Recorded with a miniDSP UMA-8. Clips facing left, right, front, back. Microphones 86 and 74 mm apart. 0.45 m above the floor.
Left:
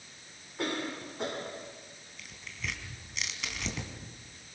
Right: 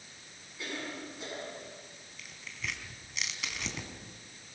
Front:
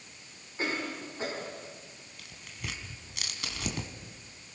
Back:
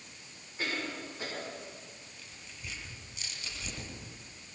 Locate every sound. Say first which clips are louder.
0.6 s a cough: left 6 dB, front 3 dB; 60° left, 4.5 m
2.2 s tearing paper: left 1 dB, front 7 dB; straight ahead, 3 m